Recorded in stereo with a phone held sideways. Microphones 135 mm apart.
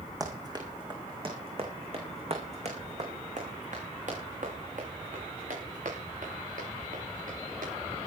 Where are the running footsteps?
25° right (ahead or behind), 5 m; by 7.7 s 80° right, 11 m.